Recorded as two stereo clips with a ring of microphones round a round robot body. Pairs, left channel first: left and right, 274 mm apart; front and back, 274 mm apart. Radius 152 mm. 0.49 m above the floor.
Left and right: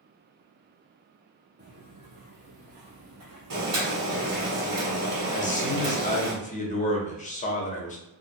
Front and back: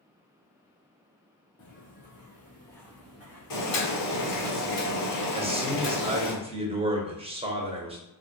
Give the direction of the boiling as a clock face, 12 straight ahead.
1 o'clock.